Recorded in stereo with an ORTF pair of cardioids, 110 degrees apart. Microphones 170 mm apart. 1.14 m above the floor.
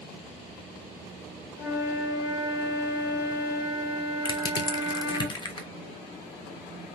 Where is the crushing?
30° left, 0.5 m.